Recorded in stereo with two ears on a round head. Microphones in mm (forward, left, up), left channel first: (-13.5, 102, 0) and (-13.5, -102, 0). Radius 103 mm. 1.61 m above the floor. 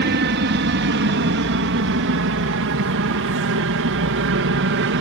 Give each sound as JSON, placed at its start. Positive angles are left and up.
{"t": 0.0, "sound": "an aircraft", "side_deg": -45}